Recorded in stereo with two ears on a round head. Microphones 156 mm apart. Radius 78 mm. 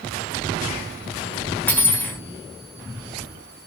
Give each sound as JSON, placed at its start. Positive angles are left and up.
{"t": 1.7, "sound": "cutlery clinking", "side_deg": 10, "distance_m": 0.7}